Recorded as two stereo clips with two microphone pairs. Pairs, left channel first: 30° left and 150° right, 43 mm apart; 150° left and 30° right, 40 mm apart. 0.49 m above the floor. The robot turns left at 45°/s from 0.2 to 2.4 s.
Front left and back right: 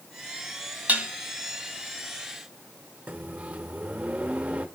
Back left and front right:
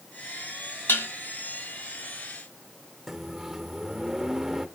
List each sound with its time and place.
0.9 s dishes clattering: 155° left, 2 m; by 1.1 s 150° left, 2 m
3.1 s a microwave: 110° right, 0.9 m